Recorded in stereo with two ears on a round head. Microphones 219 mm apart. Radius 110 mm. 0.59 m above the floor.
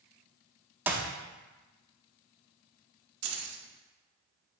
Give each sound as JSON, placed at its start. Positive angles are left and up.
{"t": 0.9, "sound": "a clap", "side_deg": -10, "distance_m": 0.7}
{"t": 3.2, "sound": "keys jangling", "side_deg": -65, "distance_m": 0.9}